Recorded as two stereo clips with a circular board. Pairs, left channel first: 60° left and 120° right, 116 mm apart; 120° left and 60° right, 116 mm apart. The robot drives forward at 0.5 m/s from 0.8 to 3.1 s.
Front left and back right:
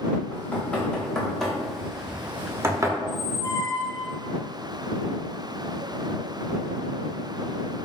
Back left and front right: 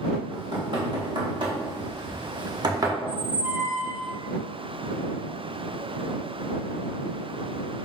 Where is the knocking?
20° right, 1.2 m; by 2.9 s 85° right, 0.6 m.